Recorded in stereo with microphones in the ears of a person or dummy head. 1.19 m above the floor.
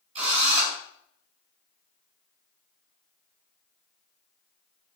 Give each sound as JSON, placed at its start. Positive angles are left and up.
{"t": 0.1, "sound": "a drill", "side_deg": -35, "distance_m": 4.5}